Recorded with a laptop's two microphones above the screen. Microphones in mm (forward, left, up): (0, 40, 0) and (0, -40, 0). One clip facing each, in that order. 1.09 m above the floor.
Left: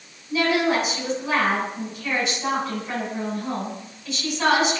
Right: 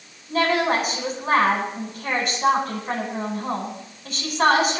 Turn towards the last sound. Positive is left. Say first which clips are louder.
# even
turn(degrees=-50)  # may be behind; listen again after turning